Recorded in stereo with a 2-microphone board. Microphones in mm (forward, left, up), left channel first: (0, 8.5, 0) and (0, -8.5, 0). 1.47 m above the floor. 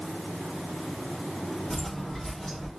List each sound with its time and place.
1.7 s footsteps: 35° left (ahead or behind), 1.7 m; by 2.7 s 10° left (ahead or behind), 1.6 m